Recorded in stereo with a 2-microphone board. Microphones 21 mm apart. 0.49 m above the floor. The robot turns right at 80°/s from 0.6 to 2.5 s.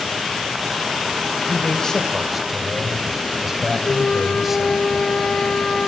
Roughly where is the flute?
Left.